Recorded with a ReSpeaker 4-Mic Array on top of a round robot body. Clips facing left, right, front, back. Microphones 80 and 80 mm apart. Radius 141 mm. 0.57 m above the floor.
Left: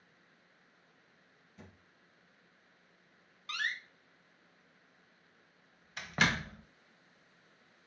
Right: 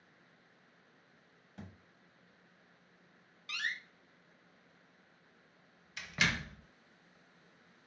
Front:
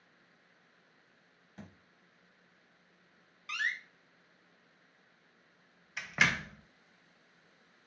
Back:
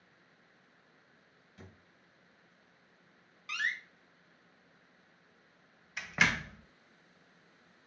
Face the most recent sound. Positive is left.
turn(degrees=90)